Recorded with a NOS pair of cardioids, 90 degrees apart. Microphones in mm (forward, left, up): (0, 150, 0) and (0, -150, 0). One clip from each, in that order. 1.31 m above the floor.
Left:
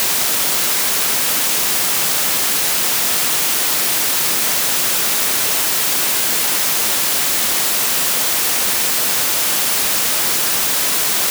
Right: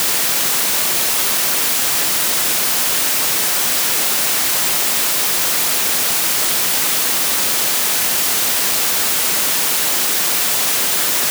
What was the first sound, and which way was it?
Only background noise.